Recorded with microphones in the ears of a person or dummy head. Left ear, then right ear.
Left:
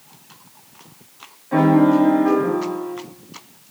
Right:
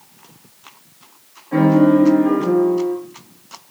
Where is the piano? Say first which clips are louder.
Right 1 dB; 20° left (ahead or behind), 2.5 m.